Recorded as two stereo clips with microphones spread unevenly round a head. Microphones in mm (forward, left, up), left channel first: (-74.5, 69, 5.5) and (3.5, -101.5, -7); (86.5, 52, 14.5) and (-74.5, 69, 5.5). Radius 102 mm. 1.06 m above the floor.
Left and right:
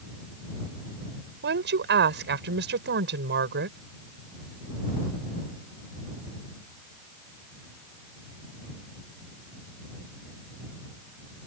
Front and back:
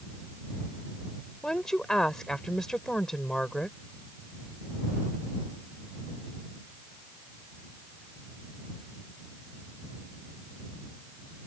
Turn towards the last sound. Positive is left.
turn(degrees=-95)